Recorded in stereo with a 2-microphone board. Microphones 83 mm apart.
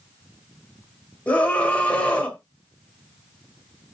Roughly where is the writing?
I don't hear writing.